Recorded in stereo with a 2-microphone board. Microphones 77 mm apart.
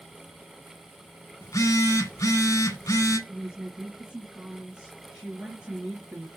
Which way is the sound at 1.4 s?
45° left (ahead or behind).